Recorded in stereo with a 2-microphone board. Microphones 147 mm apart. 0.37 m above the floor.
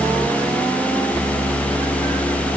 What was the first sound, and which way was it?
Only background noise.